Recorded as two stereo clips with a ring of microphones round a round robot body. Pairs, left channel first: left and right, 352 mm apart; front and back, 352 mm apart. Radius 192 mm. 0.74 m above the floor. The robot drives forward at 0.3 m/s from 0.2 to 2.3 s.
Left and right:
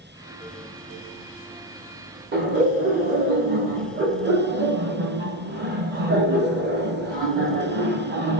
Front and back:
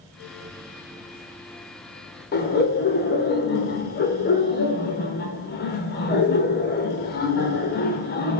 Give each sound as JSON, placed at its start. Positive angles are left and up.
{"t": 2.3, "sound": "laughter", "azimuth_deg": -45, "distance_m": 0.7}